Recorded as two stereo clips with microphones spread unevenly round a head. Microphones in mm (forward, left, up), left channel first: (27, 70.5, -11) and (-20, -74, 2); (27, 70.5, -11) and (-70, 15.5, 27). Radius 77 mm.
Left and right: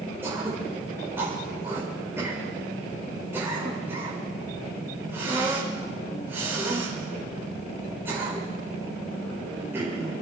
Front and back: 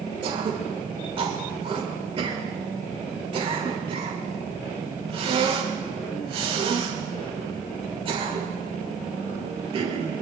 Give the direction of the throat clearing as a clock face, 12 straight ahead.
6 o'clock.